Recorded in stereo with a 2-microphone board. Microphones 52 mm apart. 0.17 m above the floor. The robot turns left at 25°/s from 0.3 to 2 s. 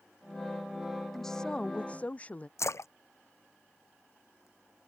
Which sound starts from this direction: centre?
A woman speaking, at 1.1 s.